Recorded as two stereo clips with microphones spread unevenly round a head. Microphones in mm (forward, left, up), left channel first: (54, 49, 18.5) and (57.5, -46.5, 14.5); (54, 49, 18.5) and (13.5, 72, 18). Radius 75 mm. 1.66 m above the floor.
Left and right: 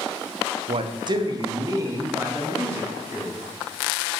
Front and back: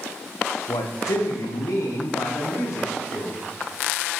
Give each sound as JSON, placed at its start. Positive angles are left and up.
{"t": 0.7, "sound": "a man speaking", "azimuth_deg": -65, "distance_m": 0.6}